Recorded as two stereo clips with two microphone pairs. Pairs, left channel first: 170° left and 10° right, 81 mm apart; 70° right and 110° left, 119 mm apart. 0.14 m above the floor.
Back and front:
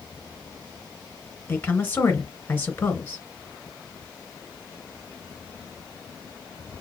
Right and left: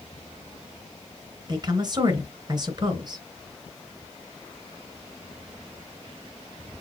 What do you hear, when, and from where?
1.5 s a woman speaking: 120° left, 1.8 m